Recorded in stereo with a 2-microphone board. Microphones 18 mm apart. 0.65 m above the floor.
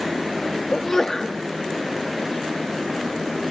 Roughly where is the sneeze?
Left.